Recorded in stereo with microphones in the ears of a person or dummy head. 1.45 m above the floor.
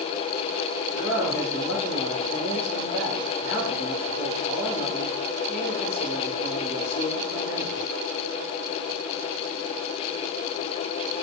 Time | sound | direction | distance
0.9 | a man speaking | 45° left (ahead or behind) | 2.5 m